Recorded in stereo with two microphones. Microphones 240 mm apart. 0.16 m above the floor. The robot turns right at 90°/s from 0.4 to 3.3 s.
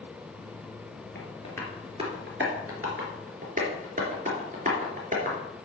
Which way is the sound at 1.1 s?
45° left (ahead or behind).